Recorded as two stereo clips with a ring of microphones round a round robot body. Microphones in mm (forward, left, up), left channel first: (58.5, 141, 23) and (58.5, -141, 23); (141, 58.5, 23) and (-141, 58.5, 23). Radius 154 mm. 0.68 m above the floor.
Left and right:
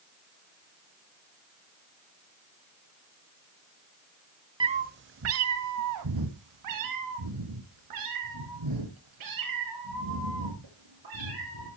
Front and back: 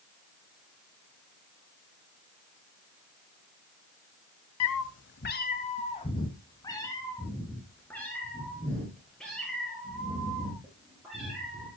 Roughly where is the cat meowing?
Ahead.